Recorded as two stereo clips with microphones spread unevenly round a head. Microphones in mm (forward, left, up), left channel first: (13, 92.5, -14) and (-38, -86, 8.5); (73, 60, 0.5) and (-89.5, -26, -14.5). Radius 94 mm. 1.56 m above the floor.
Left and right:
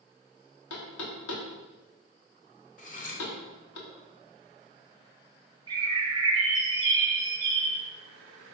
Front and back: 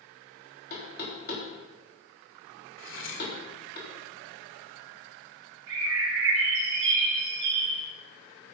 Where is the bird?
170° right, 3 m.